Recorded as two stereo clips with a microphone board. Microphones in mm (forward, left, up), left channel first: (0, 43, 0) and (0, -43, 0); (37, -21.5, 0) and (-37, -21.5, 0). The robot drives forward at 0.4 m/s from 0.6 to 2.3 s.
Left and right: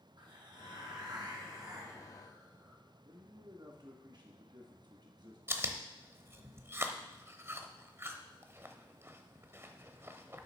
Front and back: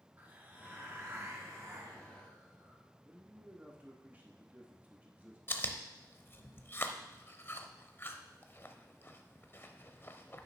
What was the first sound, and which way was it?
A hiss, 115° right.